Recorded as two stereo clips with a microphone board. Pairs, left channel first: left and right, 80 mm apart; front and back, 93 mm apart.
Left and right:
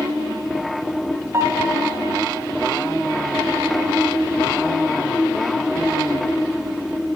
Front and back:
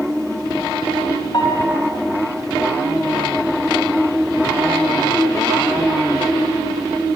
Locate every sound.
1.3 s a piano: 40° right, 1.1 m